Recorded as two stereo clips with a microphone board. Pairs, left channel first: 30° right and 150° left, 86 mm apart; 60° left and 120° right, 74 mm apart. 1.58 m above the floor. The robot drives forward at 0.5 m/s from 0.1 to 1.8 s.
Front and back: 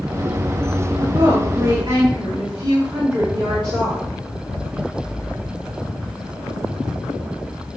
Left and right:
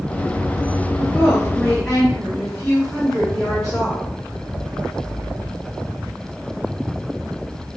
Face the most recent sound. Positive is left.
turn(degrees=140)